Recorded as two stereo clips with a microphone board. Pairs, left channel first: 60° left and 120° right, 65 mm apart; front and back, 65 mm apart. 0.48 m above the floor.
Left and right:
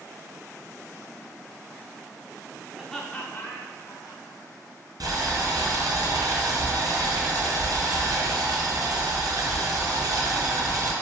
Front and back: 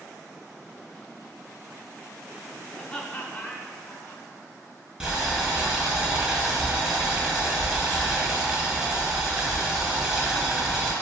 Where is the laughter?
55° right, 0.9 m; by 4.2 s 65° left, 1.8 m.